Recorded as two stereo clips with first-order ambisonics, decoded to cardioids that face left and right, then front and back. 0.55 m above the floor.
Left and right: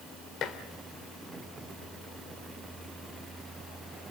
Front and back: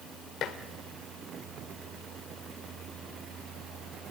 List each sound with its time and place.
0.4 s dishes clattering: 45° left, 1.3 m